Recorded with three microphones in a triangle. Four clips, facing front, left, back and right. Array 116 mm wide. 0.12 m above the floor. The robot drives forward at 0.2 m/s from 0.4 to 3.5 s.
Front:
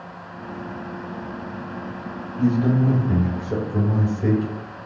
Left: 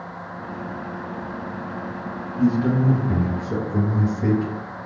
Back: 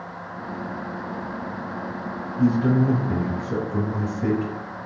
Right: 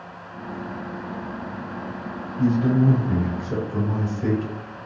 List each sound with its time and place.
2.4 s a man speaking: 110° left, 2.0 m; by 4.8 s 120° left, 2 m